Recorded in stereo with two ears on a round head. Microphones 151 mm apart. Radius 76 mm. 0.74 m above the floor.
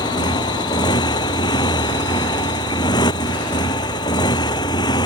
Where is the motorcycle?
25° left (ahead or behind).